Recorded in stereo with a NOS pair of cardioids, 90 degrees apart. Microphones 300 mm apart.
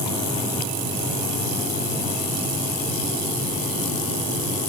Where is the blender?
I don't hear a blender.